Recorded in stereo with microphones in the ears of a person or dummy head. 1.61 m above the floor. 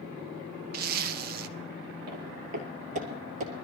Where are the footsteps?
55° right (ahead or behind), 2.5 m; by 3.5 s 45° right (ahead or behind), 2.5 m.